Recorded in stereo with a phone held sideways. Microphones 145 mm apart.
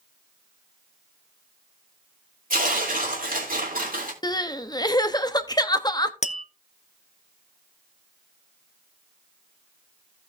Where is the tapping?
55° left (ahead or behind), 0.5 m.